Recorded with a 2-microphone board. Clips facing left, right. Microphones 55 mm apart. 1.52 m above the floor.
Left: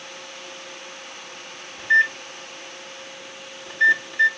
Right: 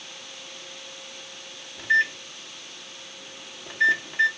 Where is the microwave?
15° right (ahead or behind), 1.3 m.